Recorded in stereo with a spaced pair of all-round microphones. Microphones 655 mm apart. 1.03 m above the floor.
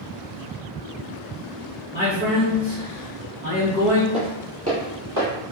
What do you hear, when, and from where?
1.9 s a man speaking: 5° right (ahead or behind), 1.3 m
4.1 s footsteps: 10° right (ahead or behind), 1.1 m; by 5.3 s 30° right (ahead or behind), 1.4 m